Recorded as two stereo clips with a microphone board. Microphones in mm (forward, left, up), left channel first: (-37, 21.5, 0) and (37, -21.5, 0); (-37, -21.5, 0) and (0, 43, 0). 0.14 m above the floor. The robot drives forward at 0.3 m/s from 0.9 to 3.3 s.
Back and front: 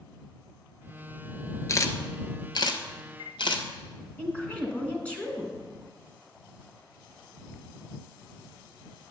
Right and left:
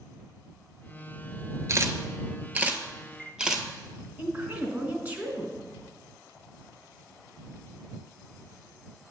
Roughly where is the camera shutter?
Left.